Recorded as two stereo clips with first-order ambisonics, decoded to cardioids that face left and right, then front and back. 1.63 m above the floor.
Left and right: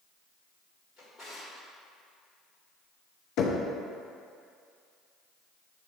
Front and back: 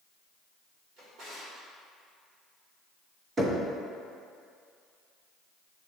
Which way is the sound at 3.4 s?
110° left.